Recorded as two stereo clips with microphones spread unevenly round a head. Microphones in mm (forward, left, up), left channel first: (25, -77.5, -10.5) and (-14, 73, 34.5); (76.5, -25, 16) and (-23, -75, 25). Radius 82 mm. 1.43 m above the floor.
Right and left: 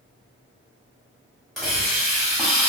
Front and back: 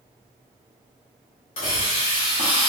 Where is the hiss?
25° left, 1.4 m.